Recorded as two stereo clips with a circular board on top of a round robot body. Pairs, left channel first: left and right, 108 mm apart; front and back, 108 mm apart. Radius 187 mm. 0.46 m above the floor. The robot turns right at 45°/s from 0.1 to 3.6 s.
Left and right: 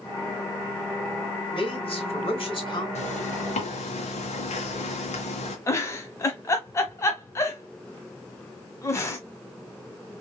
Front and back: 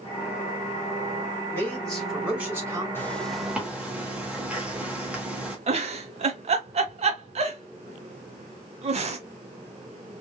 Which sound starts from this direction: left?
A zipper, at 3.0 s.